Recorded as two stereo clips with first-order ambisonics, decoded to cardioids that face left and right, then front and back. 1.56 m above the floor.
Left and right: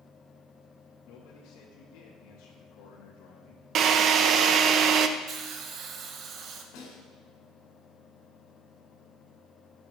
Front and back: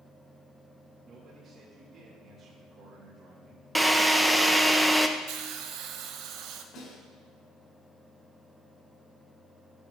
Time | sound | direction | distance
1.1 | a man speaking | 115° left | 2.5 m
3.8 | a drill | 95° right | 0.7 m
5.3 | a hiss | 145° right | 1.1 m
6.7 | a snare drum | 60° left | 4.5 m